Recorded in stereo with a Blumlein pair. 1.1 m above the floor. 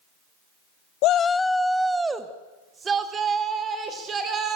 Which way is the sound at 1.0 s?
45° left.